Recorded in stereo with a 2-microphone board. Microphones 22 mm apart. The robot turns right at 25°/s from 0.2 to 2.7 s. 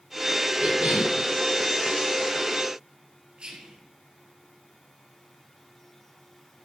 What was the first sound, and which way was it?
A cough, 30° right (ahead or behind).